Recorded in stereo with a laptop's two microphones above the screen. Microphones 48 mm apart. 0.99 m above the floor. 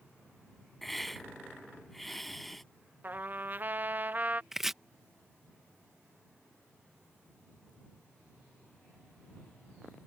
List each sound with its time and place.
0.8 s a hiss: centre (ahead or behind)
3.0 s a trumpet: 40° right (ahead or behind)
4.5 s chopping: 10° right (ahead or behind)